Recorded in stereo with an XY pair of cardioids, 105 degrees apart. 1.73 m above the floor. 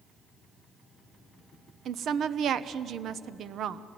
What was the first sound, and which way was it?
A woman speaking, 65° right.